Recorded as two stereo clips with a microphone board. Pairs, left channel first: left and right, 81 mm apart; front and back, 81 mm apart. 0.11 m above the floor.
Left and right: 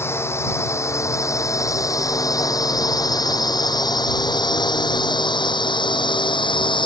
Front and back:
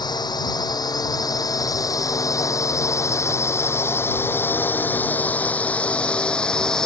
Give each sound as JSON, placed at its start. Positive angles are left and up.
{"t": 0.0, "sound": "a drone", "azimuth_deg": 30}